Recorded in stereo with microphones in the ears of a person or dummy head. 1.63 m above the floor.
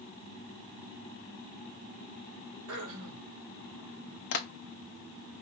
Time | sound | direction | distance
2.7 | throat clearing | 70° right (ahead or behind) | 1.8 m
4.3 | tapping | 60° left (ahead or behind) | 1.0 m